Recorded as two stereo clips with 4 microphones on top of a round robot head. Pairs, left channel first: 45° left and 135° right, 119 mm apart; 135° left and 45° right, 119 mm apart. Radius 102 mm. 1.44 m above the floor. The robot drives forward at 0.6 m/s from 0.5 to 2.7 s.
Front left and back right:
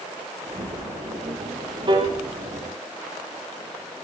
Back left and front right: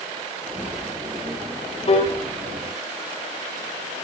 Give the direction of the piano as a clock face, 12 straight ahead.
6 o'clock.